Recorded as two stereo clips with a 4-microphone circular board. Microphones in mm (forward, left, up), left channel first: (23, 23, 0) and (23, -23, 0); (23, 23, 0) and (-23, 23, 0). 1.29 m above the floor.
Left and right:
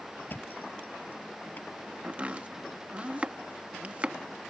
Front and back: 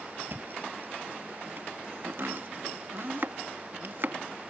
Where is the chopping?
150° right.